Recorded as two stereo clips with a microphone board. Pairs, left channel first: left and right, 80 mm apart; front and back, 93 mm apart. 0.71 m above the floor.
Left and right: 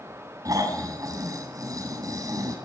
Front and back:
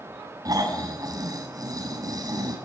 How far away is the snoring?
About 6 m.